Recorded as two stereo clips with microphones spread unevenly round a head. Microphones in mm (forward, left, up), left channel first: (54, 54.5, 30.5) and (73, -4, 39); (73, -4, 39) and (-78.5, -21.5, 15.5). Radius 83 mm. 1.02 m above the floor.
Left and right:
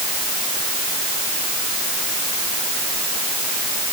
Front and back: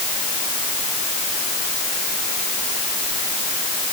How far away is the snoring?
I don't hear snoring.